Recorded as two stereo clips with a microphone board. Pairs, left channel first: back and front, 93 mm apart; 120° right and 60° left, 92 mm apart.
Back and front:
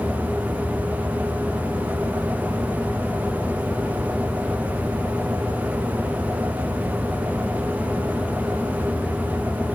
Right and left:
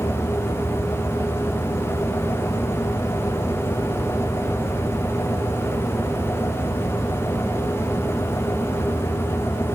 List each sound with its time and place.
Only background noise.